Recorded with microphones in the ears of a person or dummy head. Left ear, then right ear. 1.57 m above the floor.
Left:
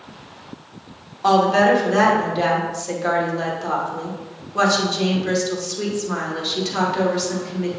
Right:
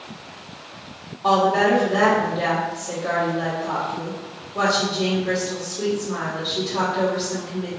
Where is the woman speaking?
75° left (ahead or behind), 1.8 m.